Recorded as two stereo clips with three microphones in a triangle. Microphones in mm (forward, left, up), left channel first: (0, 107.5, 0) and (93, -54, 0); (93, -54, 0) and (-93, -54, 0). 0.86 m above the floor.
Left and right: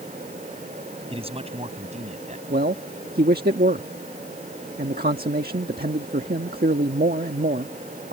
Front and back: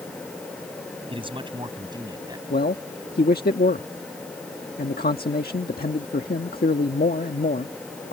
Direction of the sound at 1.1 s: 120° right.